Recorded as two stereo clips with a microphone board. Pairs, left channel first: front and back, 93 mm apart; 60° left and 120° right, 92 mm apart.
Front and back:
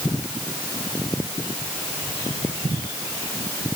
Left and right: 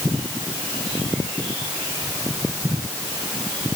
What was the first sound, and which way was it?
Only background noise.